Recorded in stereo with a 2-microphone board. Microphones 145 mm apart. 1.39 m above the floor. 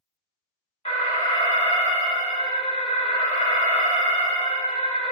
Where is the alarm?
45° left (ahead or behind), 0.9 m.